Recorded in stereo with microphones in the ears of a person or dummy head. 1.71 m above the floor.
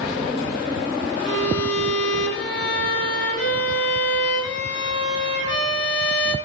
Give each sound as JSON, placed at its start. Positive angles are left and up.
{"t": 1.2, "sound": "a violin", "side_deg": 55, "distance_m": 4.0}